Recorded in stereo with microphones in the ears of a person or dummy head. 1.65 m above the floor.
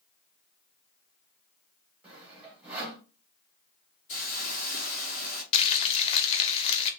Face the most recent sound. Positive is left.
turn(degrees=30)  # may be behind; listen again after turning